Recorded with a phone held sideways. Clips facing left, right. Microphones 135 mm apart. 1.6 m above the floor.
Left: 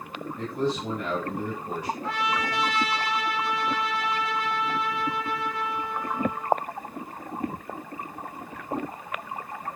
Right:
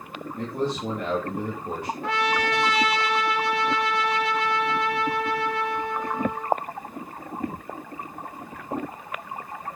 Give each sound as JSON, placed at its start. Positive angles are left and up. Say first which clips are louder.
{"t": 0.3, "sound": "a man speaking", "louder": "even", "side_deg": -55, "distance_m": 3.5}
{"t": 2.0, "sound": "a trumpet", "louder": "right 6 dB", "side_deg": -70, "distance_m": 1.3}